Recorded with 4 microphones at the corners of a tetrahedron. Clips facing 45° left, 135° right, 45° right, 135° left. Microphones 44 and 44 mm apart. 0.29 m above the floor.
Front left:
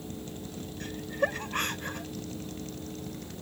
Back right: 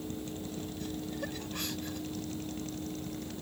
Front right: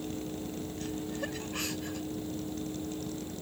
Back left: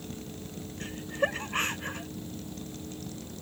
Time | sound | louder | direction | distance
0.8 | laughter | front left 10 dB, back left 8 dB | 90° left | ?